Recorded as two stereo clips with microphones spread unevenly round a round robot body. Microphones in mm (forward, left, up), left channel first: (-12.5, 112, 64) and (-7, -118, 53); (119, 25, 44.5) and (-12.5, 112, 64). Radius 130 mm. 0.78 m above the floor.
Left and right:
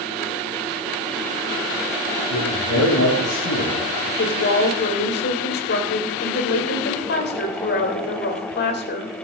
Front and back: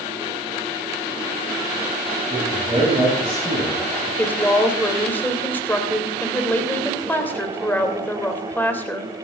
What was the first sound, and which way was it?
A man speaking, 70° left.